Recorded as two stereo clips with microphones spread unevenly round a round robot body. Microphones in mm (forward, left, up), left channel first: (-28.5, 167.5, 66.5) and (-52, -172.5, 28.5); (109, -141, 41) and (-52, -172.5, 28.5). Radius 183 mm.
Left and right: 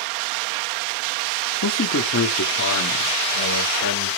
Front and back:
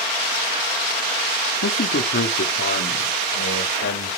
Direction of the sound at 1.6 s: 30° left.